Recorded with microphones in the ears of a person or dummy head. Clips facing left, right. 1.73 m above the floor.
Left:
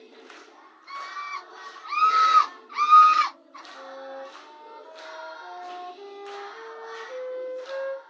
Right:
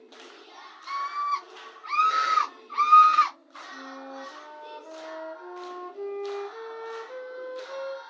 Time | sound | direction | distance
0.9 | a scream | 65° right (ahead or behind) | 1.0 m
3.7 | a flute | 55° right (ahead or behind) | 0.9 m